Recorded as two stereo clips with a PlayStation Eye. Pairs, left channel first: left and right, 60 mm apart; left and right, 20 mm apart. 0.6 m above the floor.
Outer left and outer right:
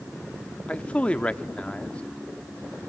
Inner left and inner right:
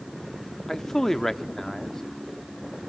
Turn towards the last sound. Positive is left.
turn(degrees=20)  # may be behind; listen again after turning